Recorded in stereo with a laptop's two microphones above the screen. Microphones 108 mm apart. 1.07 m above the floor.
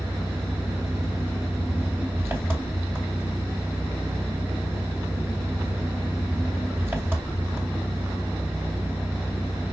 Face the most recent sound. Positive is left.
turn(degrees=-20)  # may be behind; listen again after turning